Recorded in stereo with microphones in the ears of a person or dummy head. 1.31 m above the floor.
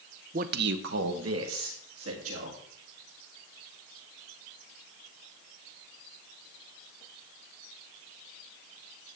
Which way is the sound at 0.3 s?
35° right (ahead or behind).